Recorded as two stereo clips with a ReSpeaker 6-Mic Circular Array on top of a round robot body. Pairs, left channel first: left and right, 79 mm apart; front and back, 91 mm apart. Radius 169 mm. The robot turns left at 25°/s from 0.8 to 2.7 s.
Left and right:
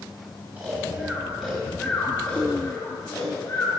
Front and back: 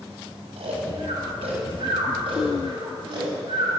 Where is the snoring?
160° right, 3 m; by 3.8 s 150° left, 3 m.